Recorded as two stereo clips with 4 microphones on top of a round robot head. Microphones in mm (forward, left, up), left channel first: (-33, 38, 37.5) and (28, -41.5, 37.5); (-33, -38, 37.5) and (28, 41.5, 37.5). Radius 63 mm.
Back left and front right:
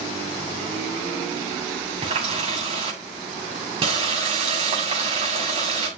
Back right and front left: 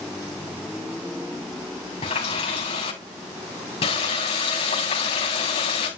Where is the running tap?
90° right, 7.5 m.